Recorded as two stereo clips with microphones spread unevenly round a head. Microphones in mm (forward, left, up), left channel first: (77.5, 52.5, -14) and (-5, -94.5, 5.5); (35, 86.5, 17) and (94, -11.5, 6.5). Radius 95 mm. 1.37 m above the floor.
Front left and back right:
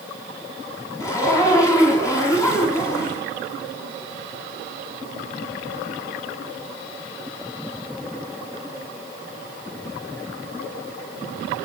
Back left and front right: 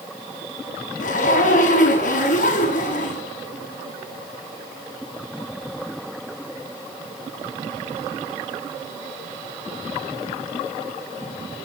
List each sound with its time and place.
1.0 s a zipper: 135° left, 5.5 m